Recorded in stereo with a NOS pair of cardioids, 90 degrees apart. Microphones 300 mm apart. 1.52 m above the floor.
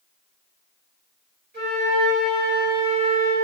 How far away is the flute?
About 2.0 m.